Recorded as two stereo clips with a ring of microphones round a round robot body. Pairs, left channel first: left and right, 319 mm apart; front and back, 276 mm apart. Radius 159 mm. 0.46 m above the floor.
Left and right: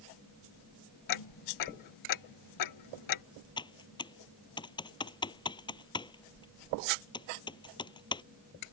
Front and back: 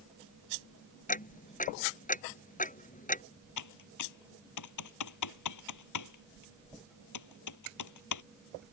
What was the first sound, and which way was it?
Ticking, 60° left.